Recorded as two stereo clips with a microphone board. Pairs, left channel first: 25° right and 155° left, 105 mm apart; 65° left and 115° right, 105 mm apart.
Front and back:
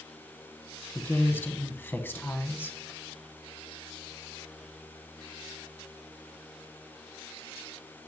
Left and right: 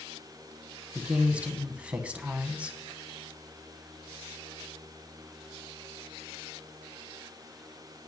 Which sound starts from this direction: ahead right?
A woman speaking, at 0.9 s.